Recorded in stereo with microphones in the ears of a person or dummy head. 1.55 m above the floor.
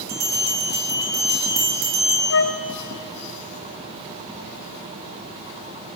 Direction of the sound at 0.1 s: 45° right (ahead or behind).